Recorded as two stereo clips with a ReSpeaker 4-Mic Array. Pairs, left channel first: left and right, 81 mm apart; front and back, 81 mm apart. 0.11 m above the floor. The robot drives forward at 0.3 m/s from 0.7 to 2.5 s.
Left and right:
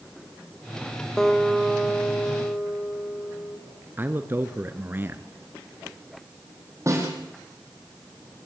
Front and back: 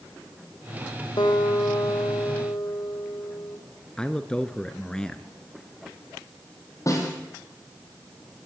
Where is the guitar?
5° left, 3 m; by 3.6 s 10° left, 2.5 m.